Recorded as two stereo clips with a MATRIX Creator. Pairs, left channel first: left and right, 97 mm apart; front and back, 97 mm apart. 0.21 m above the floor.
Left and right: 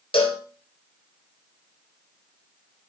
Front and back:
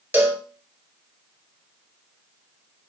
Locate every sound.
0.1 s a cowbell: 110° left, 0.8 m